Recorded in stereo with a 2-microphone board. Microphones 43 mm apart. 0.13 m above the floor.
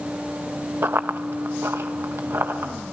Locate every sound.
0.8 s running footsteps: 65° right (ahead or behind), 0.9 m; by 2.7 s 75° right (ahead or behind), 2.5 m